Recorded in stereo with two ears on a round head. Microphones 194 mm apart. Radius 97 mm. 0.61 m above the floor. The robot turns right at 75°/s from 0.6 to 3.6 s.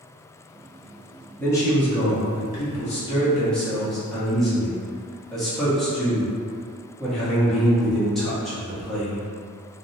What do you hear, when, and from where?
1.4 s a man speaking: 10° left, 0.8 m; by 9.3 s straight behind, 0.8 m